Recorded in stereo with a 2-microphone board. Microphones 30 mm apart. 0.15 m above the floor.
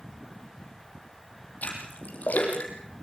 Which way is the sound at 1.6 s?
65° left (ahead or behind).